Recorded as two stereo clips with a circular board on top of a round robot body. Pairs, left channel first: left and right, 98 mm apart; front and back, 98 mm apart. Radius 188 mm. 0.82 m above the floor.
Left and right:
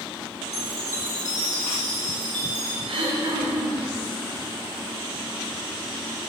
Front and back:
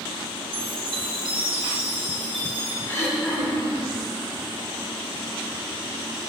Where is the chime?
150° left, 4.5 m.